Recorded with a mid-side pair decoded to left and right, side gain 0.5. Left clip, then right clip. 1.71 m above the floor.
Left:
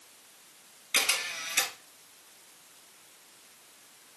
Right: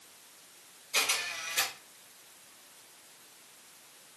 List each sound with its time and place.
0.9 s a camera shutter: 55° left, 3 m